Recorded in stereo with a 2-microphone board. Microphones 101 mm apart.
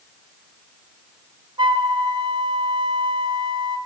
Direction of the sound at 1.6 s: 50° right (ahead or behind).